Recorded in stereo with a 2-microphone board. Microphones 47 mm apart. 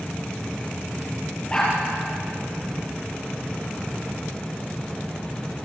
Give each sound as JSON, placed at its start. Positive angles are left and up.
{"t": 1.5, "sound": "a dog barking", "side_deg": 20, "distance_m": 5.5}